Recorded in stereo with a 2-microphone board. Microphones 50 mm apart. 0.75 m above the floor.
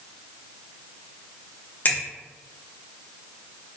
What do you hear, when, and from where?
1.9 s a finger snap: 40° left (ahead or behind), 0.7 m